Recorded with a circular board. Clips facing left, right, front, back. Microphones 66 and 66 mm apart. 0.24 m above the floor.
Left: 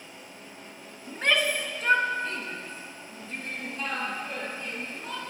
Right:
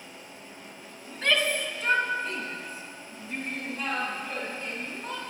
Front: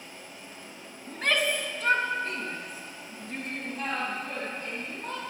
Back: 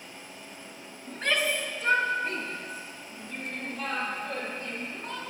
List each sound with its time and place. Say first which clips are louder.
1.1 s a shout: left 1 dB, front 1 dB; 35° left, 1.8 m; by 5.2 s 25° right, 7 m